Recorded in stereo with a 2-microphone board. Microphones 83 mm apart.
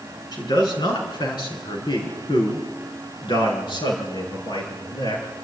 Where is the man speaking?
55° left (ahead or behind), 5 m; by 5.2 s 80° left, 7 m.